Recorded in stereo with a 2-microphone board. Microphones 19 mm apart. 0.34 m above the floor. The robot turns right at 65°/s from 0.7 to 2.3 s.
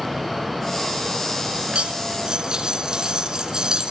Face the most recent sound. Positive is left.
turn(degrees=-45)